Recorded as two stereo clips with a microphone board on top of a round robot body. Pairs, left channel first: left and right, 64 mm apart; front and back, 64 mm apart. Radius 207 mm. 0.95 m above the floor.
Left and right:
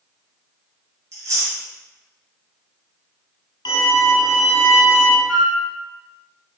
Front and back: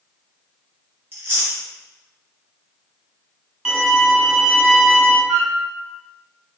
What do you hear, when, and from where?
1.1 s chewing: 130° right, 3 m
3.6 s a violin: 100° left, 1.2 m
5.3 s a flute: 170° right, 3 m